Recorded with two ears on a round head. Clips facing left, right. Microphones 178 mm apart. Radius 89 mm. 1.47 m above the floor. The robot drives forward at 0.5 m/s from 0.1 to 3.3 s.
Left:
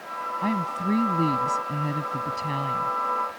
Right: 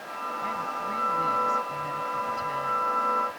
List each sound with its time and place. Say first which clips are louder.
0.4 s a woman speaking: left 10 dB; 75° left (ahead or behind); by 2.9 s 65° left (ahead or behind)